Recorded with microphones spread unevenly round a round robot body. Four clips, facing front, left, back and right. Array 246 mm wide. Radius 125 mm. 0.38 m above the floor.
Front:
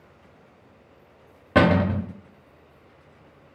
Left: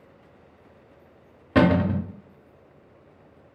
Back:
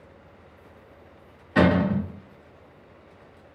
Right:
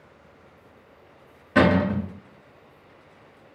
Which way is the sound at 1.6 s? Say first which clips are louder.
Even, front 1 dB; 30° left.